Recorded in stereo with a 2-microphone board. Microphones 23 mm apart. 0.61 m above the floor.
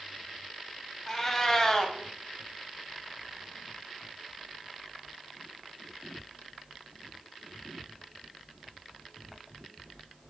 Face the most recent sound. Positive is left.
turn(degrees=15)  # may be behind; listen again after turning